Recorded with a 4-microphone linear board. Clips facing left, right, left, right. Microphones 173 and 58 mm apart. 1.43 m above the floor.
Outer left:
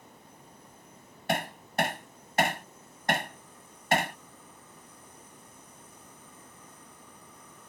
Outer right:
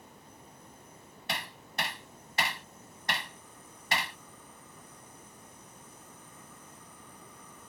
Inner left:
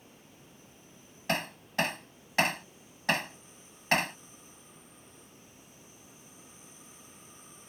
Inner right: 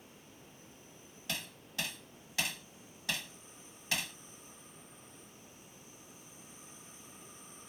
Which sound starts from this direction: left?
Hammering, at 1.3 s.